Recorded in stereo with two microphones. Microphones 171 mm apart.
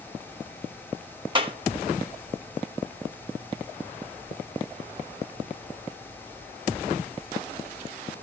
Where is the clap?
30° right (ahead or behind), 2.0 m.